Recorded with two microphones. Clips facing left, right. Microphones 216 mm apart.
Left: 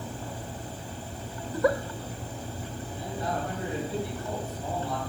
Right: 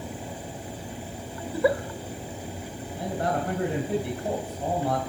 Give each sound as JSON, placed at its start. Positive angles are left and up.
{"t": 1.5, "sound": "a giggle", "side_deg": -10, "distance_m": 2.0}
{"t": 3.0, "sound": "a man speaking", "side_deg": -70, "distance_m": 3.5}